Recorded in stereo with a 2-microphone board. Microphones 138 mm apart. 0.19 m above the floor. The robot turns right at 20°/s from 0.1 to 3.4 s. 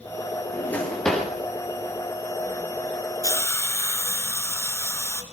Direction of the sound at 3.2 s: 25° left (ahead or behind).